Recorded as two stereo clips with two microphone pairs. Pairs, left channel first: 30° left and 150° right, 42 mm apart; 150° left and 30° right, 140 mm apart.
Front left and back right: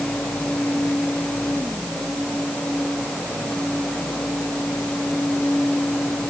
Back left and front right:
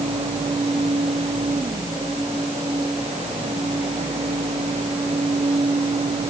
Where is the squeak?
I don't hear a squeak.